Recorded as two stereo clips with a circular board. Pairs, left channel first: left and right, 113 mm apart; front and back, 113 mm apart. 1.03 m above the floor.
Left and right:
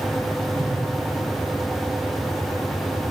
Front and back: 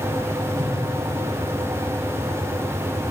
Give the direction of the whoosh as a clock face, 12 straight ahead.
4 o'clock.